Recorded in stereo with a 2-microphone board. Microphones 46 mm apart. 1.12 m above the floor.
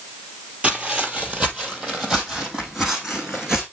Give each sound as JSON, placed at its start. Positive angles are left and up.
{"t": 0.6, "sound": "footsteps", "side_deg": -25, "distance_m": 1.3}